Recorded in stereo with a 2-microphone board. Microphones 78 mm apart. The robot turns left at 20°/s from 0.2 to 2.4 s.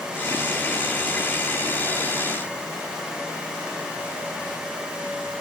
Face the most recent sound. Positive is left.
No sound to turn to.